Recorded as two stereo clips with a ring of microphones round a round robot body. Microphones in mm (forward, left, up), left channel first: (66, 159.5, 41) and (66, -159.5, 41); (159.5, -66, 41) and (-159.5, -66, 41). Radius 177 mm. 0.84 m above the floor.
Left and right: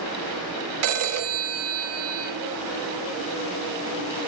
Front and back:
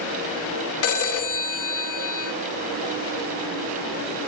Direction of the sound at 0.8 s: 45° right.